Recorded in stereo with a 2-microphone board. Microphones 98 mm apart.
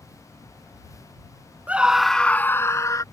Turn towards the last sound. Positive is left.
turn(degrees=35)  # may be behind; listen again after turning